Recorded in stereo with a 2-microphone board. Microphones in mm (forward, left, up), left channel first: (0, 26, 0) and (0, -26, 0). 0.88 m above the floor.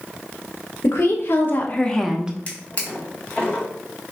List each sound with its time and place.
0.8 s a woman speaking: 60° left (ahead or behind), 1.0 m; by 2.4 s 20° right (ahead or behind), 0.5 m
2.5 s a drawer: 25° left (ahead or behind), 1.5 m